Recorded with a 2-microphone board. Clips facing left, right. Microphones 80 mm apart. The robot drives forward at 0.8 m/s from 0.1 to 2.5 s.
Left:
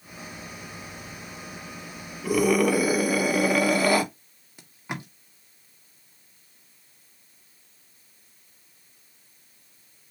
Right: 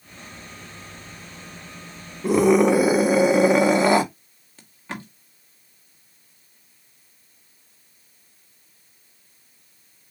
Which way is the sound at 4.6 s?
10° left (ahead or behind).